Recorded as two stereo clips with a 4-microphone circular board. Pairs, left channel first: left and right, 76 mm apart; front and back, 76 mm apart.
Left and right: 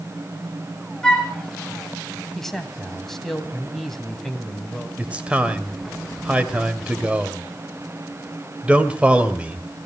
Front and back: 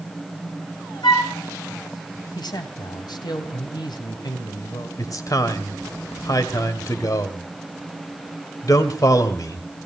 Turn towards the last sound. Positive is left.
turn(degrees=-20)